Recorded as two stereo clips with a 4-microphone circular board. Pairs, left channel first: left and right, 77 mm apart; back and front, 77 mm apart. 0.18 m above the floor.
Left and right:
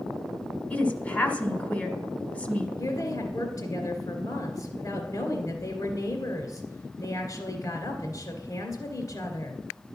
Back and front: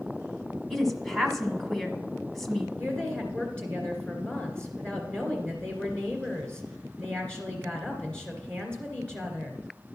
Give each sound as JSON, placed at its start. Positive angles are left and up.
{"t": 0.7, "sound": "a woman speaking", "azimuth_deg": 100, "distance_m": 1.2}
{"t": 2.8, "sound": "a woman speaking", "azimuth_deg": 105, "distance_m": 2.0}